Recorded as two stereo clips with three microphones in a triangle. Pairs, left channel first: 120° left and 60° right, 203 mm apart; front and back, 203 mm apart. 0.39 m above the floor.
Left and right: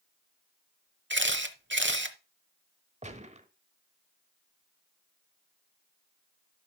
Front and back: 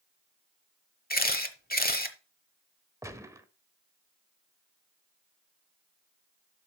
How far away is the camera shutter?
About 1.0 m.